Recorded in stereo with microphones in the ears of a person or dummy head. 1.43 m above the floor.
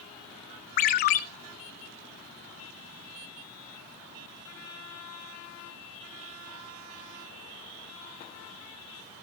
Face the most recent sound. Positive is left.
turn(degrees=45)  # may be behind; listen again after turning